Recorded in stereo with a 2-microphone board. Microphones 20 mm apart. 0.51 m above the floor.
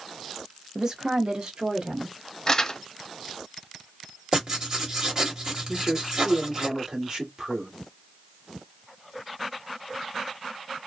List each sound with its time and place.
0.8 s a woman speaking: 25° right (ahead or behind), 0.7 m; by 2.1 s 60° right (ahead or behind), 1.2 m
2.5 s crumpling: 25° left (ahead or behind), 0.7 m
4.3 s writing: 30° right (ahead or behind), 1.5 m
5.7 s a man speaking: 35° right (ahead or behind), 1.4 m